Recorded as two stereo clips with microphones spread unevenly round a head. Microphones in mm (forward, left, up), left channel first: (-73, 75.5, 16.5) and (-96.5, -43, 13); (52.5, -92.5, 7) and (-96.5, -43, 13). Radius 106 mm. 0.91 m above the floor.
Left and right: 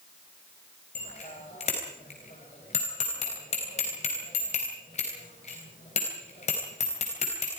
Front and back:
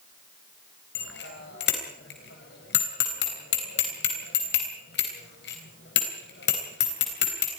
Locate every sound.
0.9 s a bicycle bell: 20° left, 3.5 m